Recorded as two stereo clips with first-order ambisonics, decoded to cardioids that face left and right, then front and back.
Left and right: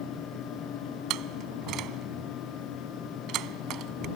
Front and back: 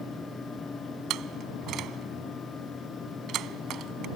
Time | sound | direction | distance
1.1 | a door slam | 130° right | ?